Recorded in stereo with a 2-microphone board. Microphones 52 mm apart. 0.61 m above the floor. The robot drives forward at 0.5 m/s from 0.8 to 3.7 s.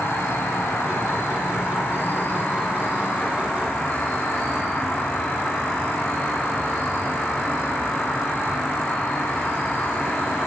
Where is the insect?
60° left (ahead or behind), 1.4 m; by 10.5 s 30° left (ahead or behind), 2.5 m.